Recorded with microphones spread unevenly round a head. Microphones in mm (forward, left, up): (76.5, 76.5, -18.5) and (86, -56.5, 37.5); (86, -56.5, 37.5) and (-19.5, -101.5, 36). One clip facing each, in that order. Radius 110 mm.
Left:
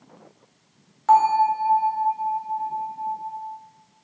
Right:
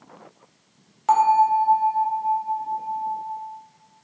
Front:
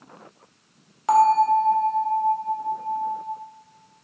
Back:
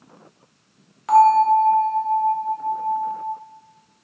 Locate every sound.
1.1 s a bell: 30° right, 0.6 m